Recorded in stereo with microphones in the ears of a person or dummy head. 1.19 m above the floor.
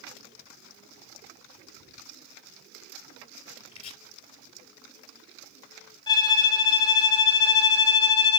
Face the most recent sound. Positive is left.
turn(degrees=25)  # may be behind; listen again after turning